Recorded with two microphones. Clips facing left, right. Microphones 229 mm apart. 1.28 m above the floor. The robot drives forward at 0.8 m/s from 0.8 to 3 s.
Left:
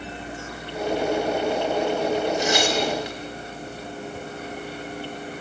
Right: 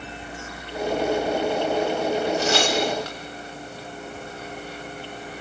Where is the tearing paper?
15° left (ahead or behind), 5 m.